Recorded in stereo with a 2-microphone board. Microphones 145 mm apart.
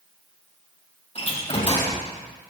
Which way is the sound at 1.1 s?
45° left (ahead or behind).